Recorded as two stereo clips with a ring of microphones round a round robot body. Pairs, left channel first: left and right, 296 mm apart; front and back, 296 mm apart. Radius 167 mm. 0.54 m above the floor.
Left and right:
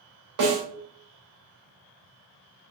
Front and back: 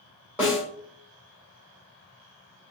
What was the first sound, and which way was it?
A snare drum, 95° right.